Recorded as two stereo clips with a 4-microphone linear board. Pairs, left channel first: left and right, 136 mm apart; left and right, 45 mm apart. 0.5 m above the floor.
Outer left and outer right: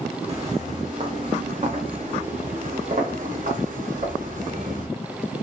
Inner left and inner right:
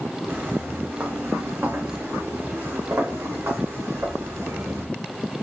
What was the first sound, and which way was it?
Footsteps, 45° right (ahead or behind).